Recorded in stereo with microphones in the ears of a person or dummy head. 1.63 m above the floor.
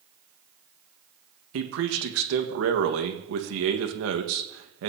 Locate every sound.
1.5 s a man speaking: 75° right (ahead or behind), 1.6 m